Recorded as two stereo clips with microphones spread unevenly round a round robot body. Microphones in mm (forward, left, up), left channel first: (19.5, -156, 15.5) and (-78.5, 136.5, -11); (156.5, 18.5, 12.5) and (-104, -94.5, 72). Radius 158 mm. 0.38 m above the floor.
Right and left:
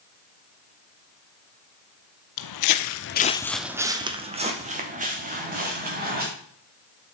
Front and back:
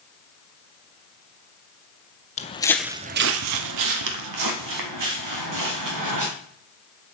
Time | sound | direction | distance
2.4 | footsteps | 45° right | 0.8 m